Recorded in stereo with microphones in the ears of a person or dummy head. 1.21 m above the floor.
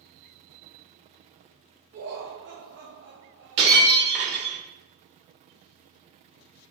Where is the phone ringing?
No phone ringing in this recording.